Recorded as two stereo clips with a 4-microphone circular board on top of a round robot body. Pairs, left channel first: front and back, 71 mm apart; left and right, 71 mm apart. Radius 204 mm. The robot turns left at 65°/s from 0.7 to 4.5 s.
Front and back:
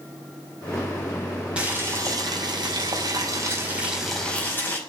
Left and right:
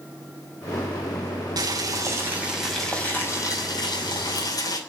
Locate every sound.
1.6 s boiling: 105° right, 5.5 m; by 4.8 s 65° left, 5.5 m